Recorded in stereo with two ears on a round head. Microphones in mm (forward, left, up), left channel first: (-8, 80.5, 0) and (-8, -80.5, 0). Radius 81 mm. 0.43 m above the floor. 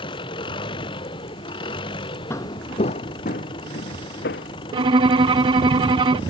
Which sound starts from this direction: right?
A violin, at 4.7 s.